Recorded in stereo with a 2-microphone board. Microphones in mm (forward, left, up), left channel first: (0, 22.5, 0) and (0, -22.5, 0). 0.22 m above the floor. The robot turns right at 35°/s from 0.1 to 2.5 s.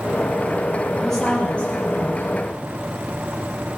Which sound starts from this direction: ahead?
A woman speaking, at 1.0 s.